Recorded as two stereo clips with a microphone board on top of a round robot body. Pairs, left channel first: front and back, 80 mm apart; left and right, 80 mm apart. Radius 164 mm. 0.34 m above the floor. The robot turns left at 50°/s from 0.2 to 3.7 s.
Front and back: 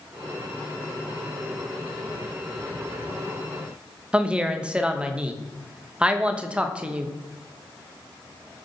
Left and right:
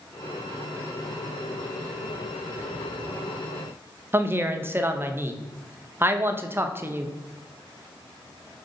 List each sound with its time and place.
4.1 s a woman speaking: 115° right, 0.9 m